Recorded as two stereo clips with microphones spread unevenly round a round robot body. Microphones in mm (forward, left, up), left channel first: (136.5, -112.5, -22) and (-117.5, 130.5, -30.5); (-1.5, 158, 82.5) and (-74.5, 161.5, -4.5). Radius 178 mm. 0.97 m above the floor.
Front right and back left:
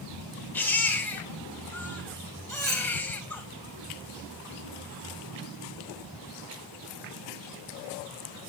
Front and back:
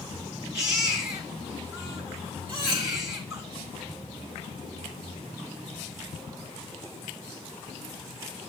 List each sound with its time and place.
0.5 s a baby crying: 130° right, 3 m
2.5 s cutlery clinking: straight behind, 4.5 m